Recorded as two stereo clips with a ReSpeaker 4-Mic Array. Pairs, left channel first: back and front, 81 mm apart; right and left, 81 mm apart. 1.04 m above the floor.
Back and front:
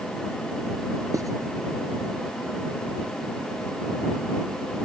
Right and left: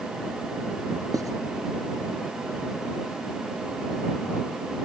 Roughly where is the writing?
Ahead left.